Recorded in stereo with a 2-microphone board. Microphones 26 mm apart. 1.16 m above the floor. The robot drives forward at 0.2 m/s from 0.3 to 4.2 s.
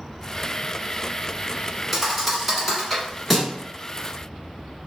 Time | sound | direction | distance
1.9 | a thud | 5° right (ahead or behind) | 1.2 m